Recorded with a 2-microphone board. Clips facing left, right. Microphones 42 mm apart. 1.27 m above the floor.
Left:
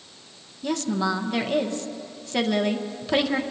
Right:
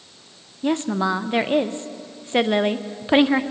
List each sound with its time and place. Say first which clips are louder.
0.6 s a woman speaking: right 4 dB; 30° right (ahead or behind), 0.5 m